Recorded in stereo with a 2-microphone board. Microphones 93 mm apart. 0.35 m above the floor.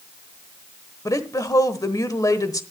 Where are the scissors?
I don't hear scissors.